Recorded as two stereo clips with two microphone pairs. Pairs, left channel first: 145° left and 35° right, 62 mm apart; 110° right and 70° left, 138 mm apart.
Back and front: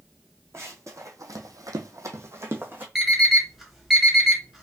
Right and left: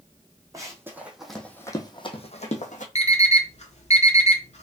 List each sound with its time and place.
0.5 s running footsteps: 5° left, 1.3 m; by 2.9 s 90° right, 1.3 m
3.0 s an alarm clock: 120° right, 1.1 m